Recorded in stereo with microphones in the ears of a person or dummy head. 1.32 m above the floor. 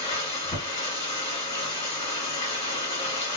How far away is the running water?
About 1.8 m.